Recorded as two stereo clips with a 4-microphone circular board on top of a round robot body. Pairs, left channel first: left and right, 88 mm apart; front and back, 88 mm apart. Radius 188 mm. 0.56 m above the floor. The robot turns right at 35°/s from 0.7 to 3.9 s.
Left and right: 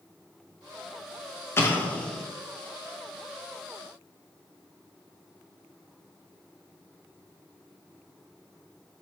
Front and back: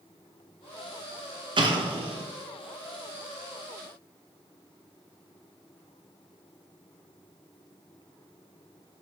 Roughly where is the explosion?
Behind left.